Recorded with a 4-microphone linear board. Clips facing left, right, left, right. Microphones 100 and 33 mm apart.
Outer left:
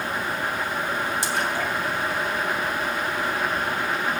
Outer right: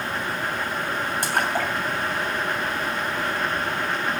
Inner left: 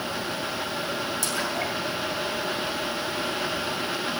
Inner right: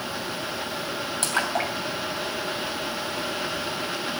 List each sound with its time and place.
1.2 s a splash: 60° right (ahead or behind), 2.5 m